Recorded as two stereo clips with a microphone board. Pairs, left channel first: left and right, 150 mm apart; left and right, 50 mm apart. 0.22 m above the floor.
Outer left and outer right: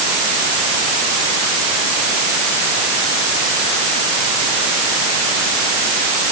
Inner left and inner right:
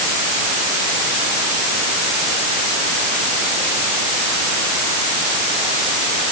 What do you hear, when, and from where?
Only background noise.